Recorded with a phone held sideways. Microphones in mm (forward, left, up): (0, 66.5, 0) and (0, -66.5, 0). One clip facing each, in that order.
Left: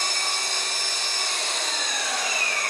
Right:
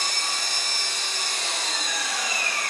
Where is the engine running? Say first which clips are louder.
Left 1 dB; 80° left, 8 m.